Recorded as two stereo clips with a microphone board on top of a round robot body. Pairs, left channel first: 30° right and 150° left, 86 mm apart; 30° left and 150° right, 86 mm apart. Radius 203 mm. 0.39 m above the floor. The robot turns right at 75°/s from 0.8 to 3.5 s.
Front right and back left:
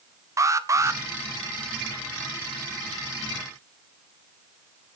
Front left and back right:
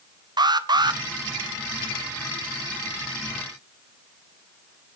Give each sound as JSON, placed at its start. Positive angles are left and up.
{"t": 0.4, "sound": "an alarm", "azimuth_deg": -165, "distance_m": 1.5}